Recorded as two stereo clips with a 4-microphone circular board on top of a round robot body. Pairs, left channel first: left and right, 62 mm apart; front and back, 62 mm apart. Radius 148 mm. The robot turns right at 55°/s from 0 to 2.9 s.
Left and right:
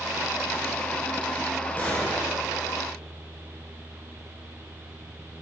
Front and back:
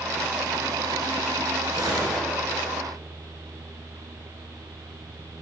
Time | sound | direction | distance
1.8 | a gunshot | 150° left | 3 m